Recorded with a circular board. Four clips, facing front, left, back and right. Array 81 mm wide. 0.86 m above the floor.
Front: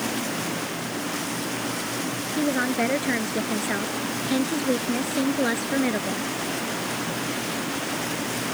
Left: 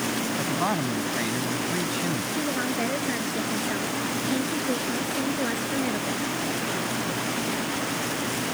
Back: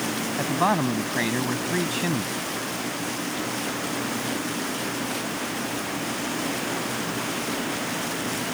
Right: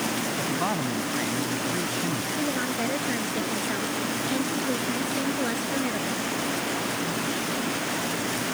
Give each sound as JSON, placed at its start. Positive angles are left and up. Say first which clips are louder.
{"t": 0.4, "sound": "a man speaking", "louder": "left 2 dB, back 8 dB", "azimuth_deg": 175}
{"t": 2.4, "sound": "a woman speaking", "louder": "even, front 7 dB", "azimuth_deg": 0}